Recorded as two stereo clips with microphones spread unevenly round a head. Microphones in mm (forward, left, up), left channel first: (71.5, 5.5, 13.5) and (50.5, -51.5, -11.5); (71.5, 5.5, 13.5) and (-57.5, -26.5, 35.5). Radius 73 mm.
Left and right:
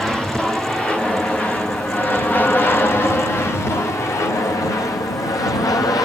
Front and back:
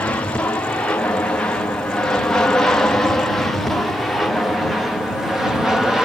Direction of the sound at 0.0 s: 40° right.